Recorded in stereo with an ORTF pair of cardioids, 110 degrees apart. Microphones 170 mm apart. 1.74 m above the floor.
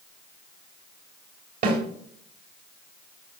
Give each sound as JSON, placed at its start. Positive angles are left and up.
{"t": 1.6, "sound": "a snare drum", "azimuth_deg": -65, "distance_m": 4.0}